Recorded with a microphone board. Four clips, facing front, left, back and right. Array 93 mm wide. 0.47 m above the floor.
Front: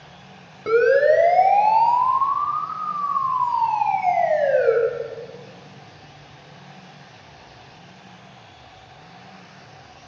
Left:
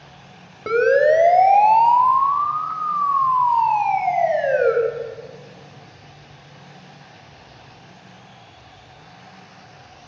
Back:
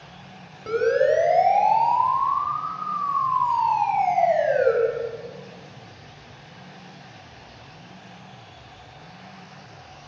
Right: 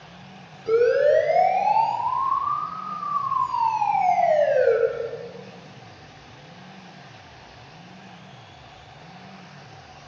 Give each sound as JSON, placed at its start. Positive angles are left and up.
{"t": 0.7, "sound": "a siren", "azimuth_deg": 65, "distance_m": 4.0}